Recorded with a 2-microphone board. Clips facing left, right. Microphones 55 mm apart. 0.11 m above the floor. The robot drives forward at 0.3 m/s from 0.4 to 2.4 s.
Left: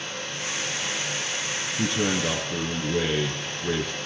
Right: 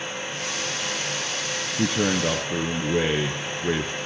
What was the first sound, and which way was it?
A man speaking, 30° right (ahead or behind).